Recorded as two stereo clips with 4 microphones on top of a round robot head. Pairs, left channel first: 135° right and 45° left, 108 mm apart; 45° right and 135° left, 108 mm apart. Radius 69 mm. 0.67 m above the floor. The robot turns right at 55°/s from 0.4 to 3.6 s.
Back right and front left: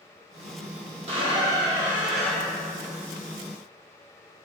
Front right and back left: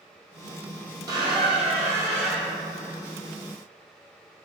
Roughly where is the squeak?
Left.